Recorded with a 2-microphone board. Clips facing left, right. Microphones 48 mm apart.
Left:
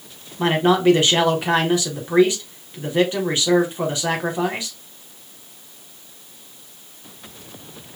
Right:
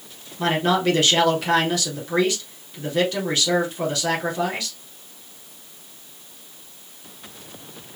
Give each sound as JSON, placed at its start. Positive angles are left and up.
{"t": 0.4, "sound": "a man speaking", "side_deg": 25, "distance_m": 1.4}